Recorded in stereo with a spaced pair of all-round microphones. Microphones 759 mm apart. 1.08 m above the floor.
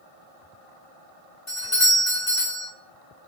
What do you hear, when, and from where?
1.5 s a doorbell: 45° left (ahead or behind), 1.5 m